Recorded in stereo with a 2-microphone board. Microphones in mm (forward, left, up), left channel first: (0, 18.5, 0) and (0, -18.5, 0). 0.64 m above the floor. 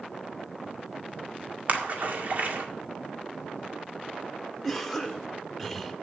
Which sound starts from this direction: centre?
A cough, at 4.6 s.